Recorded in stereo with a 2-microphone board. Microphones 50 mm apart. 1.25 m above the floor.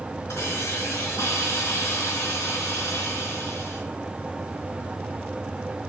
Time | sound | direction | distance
0.3 | a hiss | 65° left (ahead or behind) | 4.5 m